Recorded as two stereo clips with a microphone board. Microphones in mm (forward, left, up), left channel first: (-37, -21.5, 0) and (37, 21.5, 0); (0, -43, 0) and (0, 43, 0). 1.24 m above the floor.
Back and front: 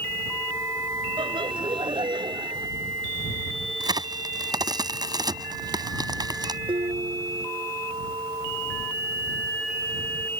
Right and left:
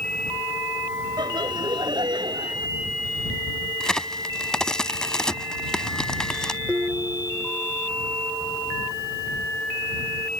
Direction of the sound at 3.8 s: 10° right.